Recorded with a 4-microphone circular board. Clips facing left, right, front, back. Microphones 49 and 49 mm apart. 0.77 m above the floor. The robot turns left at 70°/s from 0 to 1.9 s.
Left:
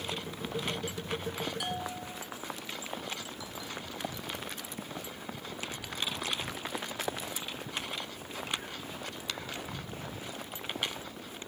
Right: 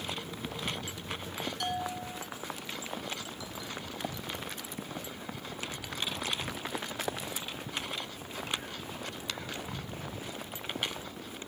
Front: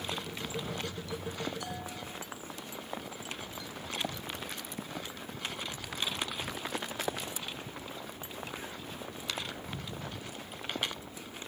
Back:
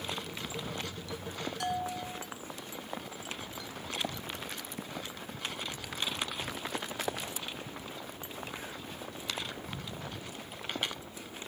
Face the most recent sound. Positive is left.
turn(degrees=155)